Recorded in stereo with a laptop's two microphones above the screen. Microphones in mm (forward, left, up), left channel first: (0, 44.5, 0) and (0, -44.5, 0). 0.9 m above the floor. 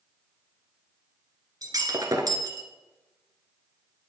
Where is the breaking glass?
45° right (ahead or behind), 1.4 m.